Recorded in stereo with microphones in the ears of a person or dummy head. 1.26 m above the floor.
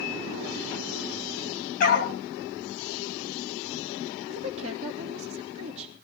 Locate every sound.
1.8 s a dog barking: 45° left (ahead or behind), 2.5 m
4.3 s a woman speaking: 35° right (ahead or behind), 2.5 m